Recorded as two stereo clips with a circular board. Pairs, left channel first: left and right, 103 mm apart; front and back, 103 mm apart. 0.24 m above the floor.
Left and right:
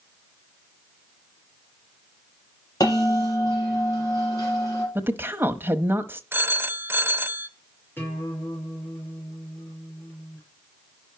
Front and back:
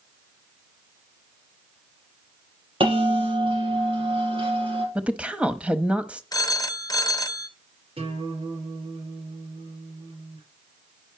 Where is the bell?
145° left, 5.5 m.